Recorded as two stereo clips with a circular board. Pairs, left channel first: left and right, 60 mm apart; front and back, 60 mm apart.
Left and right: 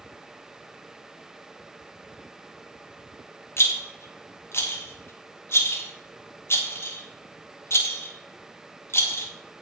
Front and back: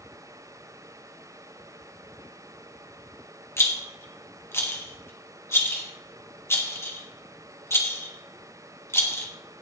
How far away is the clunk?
No clunk in this recording.